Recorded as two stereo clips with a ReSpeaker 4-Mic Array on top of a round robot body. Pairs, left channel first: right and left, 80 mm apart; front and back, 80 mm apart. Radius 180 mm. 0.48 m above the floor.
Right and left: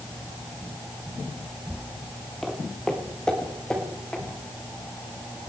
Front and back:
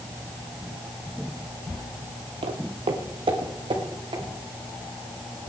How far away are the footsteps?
About 1.0 m.